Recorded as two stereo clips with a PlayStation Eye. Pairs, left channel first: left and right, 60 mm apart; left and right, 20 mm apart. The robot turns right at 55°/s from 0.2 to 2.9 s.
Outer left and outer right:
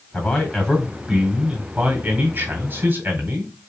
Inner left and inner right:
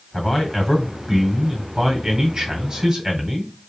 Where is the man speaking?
135° left, 1.9 m; by 3.5 s 75° right, 1.9 m.